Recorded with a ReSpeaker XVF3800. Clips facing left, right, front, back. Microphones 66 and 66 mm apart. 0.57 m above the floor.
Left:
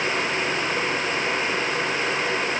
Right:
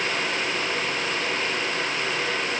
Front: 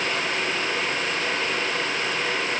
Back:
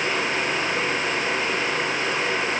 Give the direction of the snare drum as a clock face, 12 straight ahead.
I don't hear a snare drum.